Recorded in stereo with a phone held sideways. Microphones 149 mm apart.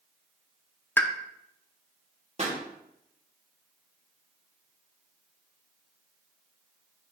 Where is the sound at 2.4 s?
45° right (ahead or behind), 1.4 m.